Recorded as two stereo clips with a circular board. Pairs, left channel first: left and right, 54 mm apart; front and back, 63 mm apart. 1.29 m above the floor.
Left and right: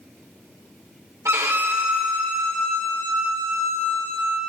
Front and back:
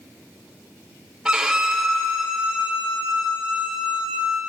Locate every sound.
1.2 s a violin: 100° right, 1.9 m